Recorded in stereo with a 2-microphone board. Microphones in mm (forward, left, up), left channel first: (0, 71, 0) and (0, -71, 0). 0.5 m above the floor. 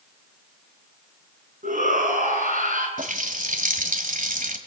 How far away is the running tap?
About 2 m.